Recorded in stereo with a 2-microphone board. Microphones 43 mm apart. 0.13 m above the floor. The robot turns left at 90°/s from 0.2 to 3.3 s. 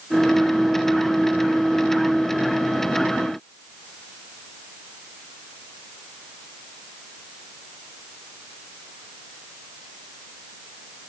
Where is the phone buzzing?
No phone buzzing in this recording.